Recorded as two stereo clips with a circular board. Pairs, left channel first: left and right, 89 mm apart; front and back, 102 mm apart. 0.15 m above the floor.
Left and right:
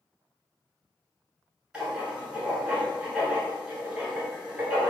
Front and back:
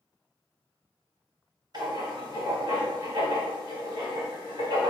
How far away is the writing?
About 1.8 m.